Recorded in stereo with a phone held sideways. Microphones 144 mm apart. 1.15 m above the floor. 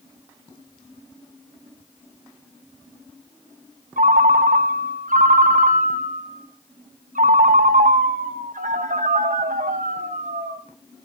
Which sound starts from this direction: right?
A ringtone, at 4.0 s.